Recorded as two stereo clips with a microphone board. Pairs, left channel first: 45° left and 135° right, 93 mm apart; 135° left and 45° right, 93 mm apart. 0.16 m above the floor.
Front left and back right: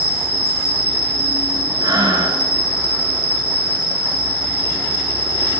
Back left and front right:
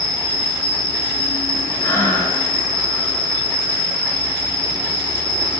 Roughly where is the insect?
Behind left.